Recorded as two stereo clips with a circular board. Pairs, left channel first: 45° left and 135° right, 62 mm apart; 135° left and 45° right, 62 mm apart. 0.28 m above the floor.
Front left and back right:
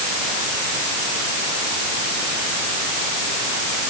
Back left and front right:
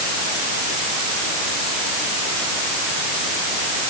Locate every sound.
Only background noise.